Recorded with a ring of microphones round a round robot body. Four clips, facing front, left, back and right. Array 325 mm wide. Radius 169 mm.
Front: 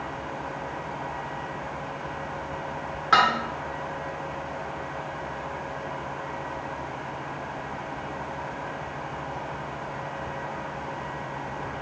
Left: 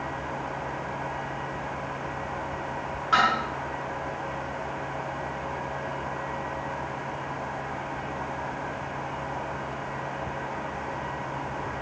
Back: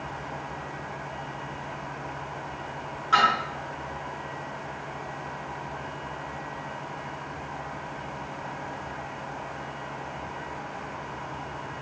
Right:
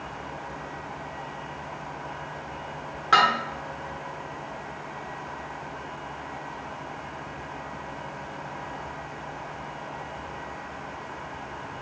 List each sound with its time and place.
3.1 s dishes clattering: 40° right, 1.2 m